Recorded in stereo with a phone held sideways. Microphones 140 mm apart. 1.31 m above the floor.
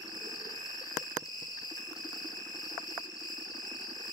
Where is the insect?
25° left (ahead or behind), 8 m.